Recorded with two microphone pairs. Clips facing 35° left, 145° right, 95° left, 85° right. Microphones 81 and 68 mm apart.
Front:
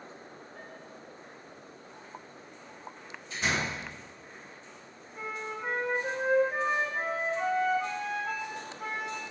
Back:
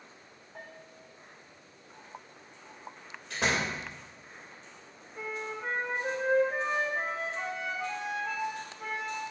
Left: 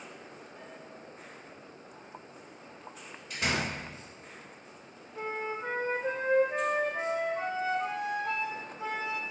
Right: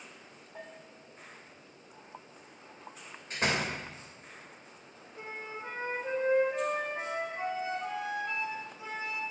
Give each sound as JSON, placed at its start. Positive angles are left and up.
{"t": 0.6, "sound": "a bell", "azimuth_deg": -110, "distance_m": 3.0}
{"t": 3.3, "sound": "a door slam", "azimuth_deg": -135, "distance_m": 3.5}
{"t": 5.2, "sound": "a flute", "azimuth_deg": 120, "distance_m": 3.0}